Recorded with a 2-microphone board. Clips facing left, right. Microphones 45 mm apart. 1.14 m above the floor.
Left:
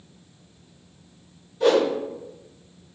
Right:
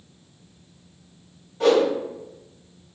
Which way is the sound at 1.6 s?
55° right (ahead or behind).